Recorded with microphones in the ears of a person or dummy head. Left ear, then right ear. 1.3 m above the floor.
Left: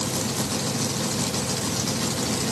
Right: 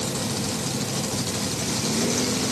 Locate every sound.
Only background noise.